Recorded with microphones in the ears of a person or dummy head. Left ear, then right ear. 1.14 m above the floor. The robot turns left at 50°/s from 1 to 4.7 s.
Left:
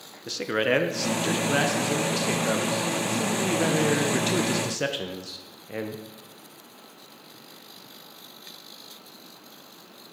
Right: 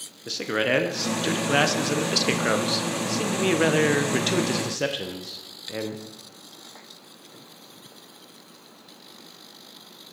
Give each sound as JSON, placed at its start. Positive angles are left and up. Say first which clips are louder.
{"t": 0.3, "sound": "a man speaking", "louder": "even", "azimuth_deg": 0, "distance_m": 0.5}